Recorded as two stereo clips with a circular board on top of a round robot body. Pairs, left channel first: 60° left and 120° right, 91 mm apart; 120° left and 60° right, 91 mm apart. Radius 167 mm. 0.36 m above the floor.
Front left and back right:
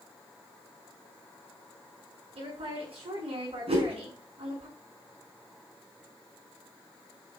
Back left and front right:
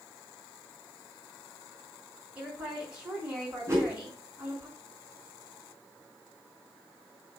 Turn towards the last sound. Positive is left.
turn(degrees=-120)